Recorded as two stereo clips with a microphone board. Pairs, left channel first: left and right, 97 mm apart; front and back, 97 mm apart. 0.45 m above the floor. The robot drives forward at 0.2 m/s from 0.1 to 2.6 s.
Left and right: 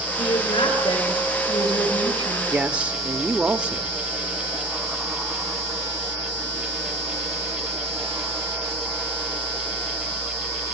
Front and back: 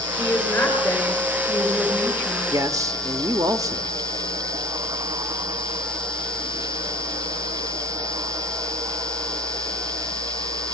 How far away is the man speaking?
About 0.8 m.